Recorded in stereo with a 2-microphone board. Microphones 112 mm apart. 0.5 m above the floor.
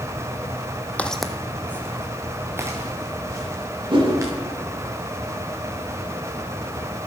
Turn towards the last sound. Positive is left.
turn(degrees=-50)  # may be behind; listen again after turning